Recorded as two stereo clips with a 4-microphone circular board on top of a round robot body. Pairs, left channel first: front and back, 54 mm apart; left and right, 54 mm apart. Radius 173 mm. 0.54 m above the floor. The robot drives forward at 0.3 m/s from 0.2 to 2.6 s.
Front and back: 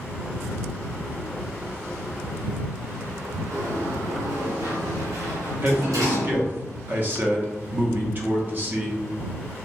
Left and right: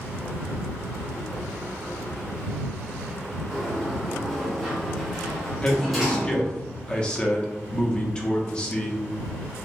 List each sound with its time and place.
3.5 s a sliding door: straight behind, 0.9 m
5.6 s a man speaking: 150° left, 0.8 m